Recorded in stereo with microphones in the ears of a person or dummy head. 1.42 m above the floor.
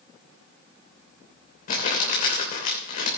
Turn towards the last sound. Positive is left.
turn(degrees=40)  # may be behind; listen again after turning